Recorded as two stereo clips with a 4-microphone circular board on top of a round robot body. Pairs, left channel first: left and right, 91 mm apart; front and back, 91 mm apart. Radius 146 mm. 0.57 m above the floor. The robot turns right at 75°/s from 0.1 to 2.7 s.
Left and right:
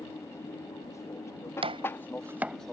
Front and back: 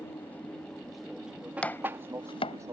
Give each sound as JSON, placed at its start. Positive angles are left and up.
{"t": 0.0, "sound": "an aircraft", "azimuth_deg": 45}
{"t": 1.6, "sound": "chopping", "azimuth_deg": -75}